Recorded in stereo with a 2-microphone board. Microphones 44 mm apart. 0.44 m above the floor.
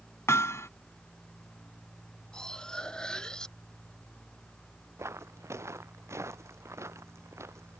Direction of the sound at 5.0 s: 80° right.